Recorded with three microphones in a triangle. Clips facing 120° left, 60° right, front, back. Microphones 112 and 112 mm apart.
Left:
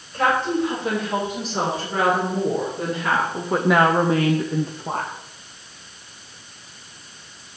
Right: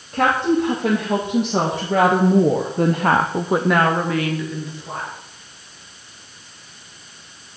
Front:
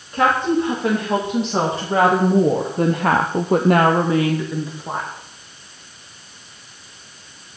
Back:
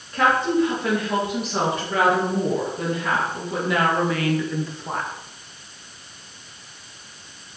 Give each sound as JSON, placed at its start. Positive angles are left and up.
{"t": 0.1, "sound": "a woman speaking", "azimuth_deg": -70, "distance_m": 3.5}